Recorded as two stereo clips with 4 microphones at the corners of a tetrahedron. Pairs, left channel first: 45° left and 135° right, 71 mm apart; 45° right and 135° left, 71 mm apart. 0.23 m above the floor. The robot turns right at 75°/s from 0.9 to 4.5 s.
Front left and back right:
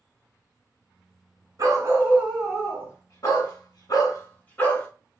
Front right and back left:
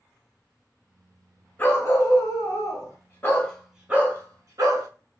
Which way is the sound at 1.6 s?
110° right.